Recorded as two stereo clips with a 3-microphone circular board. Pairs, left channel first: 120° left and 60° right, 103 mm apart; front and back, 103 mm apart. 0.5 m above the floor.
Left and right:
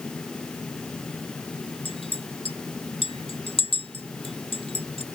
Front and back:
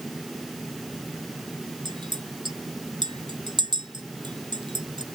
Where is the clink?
140° left.